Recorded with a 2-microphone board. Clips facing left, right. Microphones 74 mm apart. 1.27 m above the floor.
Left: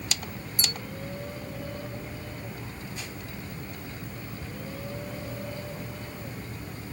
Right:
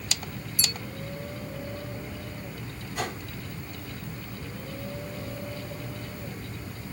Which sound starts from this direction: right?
A whoosh, at 3.0 s.